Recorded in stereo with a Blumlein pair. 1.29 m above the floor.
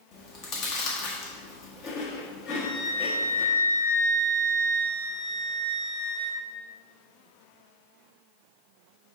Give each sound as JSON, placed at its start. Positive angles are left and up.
{"t": 0.1, "sound": "chewing", "azimuth_deg": 35, "distance_m": 1.6}
{"t": 2.5, "sound": "a flute", "azimuth_deg": 45, "distance_m": 3.0}